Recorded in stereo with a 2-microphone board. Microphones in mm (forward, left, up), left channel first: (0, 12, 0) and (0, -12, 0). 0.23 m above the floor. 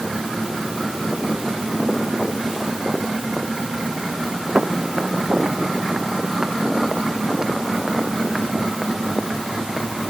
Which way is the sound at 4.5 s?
45° right (ahead or behind).